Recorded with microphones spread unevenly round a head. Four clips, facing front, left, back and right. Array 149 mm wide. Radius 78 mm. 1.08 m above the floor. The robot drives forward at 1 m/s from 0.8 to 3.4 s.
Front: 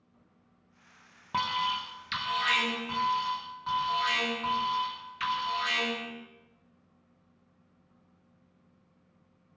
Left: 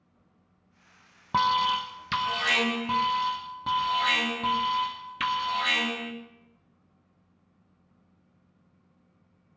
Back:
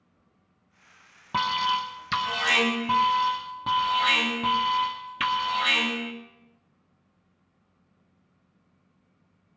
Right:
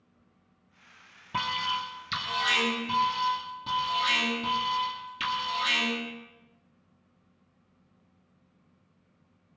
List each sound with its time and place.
1.3 s an alarm: 105° left, 1.3 m; by 6.1 s 155° left, 2.5 m